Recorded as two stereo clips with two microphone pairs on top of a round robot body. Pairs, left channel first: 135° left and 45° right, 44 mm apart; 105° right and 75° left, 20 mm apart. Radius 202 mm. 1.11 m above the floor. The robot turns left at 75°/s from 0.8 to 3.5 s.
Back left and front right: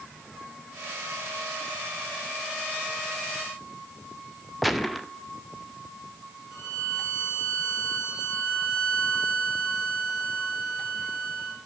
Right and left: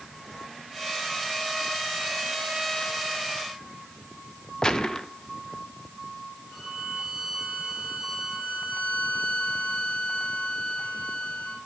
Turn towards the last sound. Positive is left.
turn(degrees=-140)